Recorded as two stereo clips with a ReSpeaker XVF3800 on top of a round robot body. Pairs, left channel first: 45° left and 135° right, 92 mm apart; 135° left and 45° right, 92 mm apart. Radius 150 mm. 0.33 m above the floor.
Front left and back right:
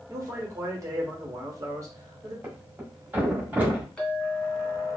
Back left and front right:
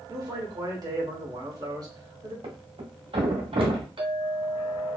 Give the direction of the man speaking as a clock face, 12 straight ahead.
3 o'clock.